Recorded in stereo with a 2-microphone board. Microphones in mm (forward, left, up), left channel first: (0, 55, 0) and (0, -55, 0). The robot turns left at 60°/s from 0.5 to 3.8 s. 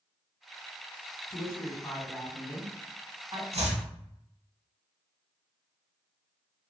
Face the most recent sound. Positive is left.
turn(degrees=-80)